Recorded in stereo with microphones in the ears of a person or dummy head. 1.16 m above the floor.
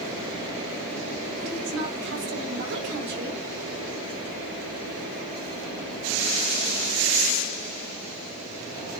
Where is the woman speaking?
60° right (ahead or behind), 7.5 m.